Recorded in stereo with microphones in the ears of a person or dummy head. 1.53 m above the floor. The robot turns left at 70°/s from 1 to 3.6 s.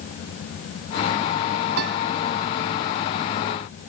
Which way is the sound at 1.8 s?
75° right (ahead or behind).